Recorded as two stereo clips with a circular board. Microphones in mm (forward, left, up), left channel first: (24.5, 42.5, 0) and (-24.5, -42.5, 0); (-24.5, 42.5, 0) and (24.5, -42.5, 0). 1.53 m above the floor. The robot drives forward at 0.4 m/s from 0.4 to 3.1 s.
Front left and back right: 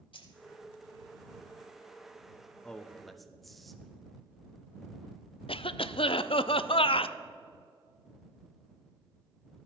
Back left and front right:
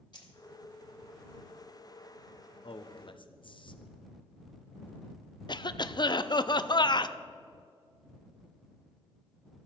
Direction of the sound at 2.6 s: 140° left.